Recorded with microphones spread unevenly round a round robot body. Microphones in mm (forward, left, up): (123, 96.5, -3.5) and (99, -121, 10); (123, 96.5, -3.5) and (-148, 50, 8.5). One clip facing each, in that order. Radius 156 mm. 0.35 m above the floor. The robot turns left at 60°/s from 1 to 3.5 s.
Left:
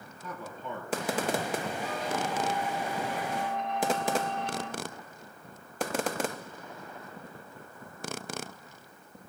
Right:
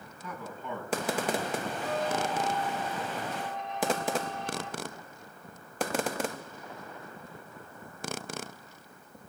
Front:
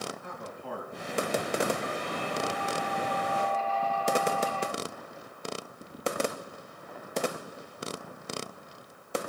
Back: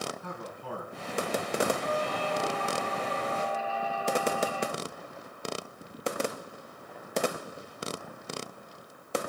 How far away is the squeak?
About 0.9 m.